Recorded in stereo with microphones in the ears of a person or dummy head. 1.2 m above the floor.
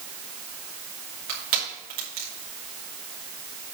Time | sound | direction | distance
1.3 | crushing | 50° right (ahead or behind) | 2.5 m